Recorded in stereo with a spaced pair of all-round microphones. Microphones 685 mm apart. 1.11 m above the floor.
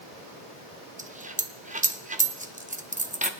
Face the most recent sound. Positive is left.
turn(degrees=-10)  # may be behind; listen again after turning